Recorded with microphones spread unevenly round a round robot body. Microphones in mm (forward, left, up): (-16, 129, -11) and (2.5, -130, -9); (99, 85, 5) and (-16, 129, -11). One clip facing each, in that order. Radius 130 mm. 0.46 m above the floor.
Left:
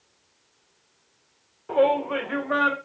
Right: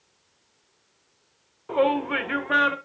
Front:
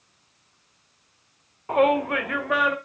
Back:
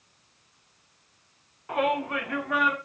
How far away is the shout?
About 0.8 m.